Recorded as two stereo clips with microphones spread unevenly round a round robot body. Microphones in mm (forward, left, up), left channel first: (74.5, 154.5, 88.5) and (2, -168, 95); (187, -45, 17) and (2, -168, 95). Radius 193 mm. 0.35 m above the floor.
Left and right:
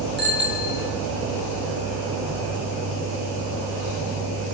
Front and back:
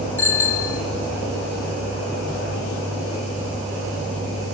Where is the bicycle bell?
45° right, 5 m.